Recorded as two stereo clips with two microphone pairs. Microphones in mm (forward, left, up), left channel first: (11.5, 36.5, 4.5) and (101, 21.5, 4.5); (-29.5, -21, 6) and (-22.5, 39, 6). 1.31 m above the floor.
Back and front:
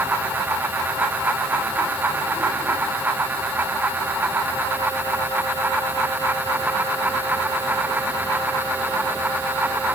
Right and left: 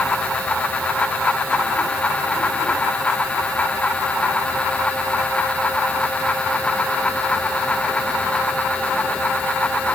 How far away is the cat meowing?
No cat meowing in this recording.